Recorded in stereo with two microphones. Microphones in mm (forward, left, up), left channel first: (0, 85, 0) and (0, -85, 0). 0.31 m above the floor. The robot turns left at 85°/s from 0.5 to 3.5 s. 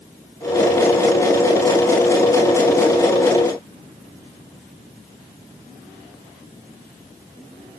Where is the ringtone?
I don't hear a ringtone.